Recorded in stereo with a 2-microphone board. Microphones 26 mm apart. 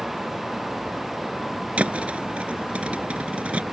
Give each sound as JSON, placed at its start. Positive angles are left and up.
{"t": 1.8, "sound": "a thud", "side_deg": -55}